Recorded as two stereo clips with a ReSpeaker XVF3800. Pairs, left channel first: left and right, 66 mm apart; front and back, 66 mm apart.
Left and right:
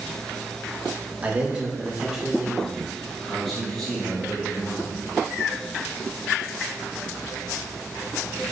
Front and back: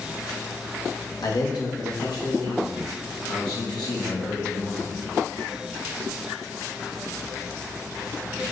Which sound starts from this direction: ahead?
A man speaking, at 1.2 s.